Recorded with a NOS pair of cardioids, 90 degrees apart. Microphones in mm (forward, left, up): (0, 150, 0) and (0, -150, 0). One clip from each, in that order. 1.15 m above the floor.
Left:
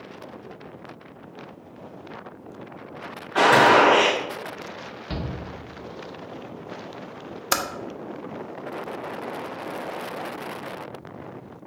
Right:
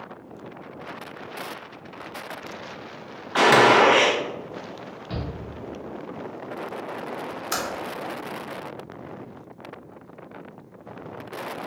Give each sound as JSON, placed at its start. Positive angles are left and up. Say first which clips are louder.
{"t": 3.4, "sound": "a gunshot", "louder": "even", "azimuth_deg": -50, "distance_m": 1.3}
{"t": 5.1, "sound": "a shout", "louder": "left 1 dB", "azimuth_deg": 30, "distance_m": 1.0}
{"t": 7.5, "sound": "typing on a keyboard", "louder": "left 4 dB", "azimuth_deg": 35, "distance_m": 0.6}